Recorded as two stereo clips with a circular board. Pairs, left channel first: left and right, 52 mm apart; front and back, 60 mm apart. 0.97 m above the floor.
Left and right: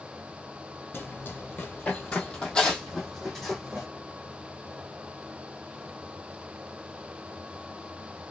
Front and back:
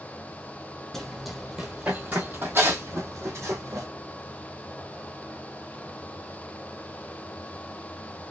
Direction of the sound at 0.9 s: 90° left.